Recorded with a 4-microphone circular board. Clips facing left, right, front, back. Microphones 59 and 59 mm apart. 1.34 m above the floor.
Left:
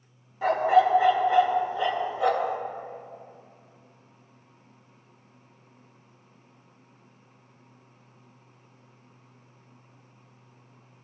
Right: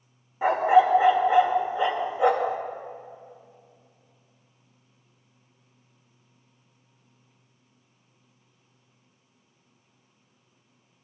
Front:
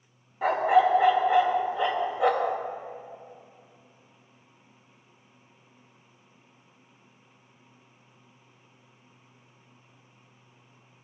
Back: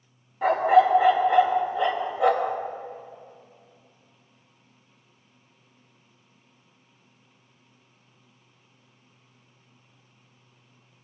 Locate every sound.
0.4 s a dog barking: 80° right, 0.7 m